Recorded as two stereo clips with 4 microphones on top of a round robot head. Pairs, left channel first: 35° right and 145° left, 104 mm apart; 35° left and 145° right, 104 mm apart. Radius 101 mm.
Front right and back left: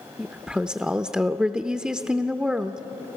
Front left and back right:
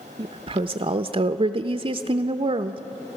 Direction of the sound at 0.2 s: 135° right.